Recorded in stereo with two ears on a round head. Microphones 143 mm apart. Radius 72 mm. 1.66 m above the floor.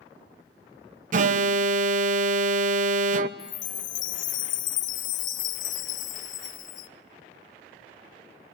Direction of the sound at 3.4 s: 50° left (ahead or behind).